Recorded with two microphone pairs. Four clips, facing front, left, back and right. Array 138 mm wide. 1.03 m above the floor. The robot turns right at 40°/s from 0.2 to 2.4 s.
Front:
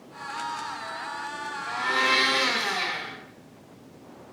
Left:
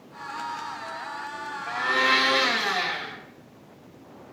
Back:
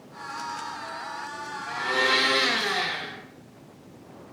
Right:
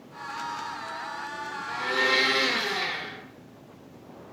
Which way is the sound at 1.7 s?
85° left.